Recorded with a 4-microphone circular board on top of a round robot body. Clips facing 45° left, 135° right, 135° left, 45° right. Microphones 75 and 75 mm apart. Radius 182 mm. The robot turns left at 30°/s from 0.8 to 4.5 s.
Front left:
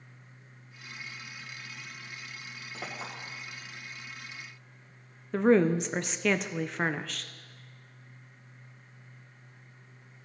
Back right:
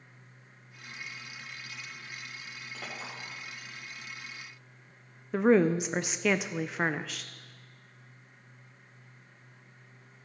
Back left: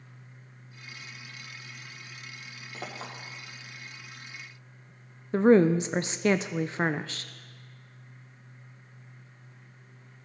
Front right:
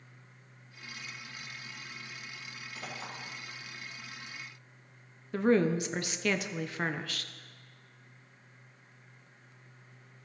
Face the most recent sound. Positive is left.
turn(degrees=145)